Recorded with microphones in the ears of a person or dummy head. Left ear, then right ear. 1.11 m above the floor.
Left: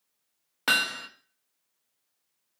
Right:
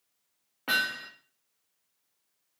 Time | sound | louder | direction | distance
0.7 | hammering | left 3 dB | 70° left (ahead or behind) | 0.7 m